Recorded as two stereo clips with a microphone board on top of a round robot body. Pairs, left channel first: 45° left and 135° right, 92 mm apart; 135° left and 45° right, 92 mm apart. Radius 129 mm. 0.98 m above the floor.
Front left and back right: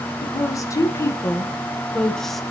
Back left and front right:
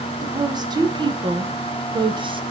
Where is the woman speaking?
Straight ahead, 1.7 m; by 2.4 s 45° right, 1.1 m.